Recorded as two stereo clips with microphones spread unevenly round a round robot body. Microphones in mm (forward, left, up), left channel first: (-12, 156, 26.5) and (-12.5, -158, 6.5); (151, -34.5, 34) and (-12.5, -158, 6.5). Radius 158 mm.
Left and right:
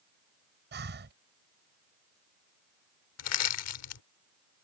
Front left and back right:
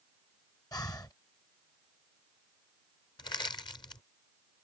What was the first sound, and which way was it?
Breathing, 40° right.